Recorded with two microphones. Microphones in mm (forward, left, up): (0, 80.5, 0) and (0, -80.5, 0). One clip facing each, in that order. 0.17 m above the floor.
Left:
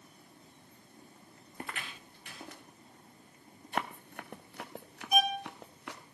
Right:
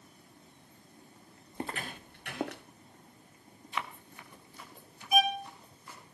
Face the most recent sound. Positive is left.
turn(degrees=0)  # may be behind; listen again after turning